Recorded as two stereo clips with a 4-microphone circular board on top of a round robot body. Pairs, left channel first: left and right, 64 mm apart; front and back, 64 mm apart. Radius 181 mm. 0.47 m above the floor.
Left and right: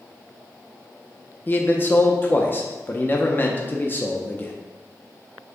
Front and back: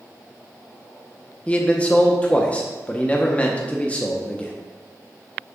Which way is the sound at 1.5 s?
55° left.